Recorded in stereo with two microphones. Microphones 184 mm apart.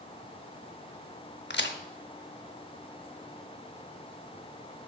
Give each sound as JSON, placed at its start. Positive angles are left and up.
{"t": 1.5, "sound": "a crack", "side_deg": 75, "distance_m": 0.7}